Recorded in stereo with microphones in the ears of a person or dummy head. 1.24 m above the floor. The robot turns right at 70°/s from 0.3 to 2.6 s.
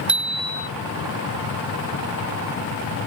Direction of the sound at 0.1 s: 5° right (ahead or behind).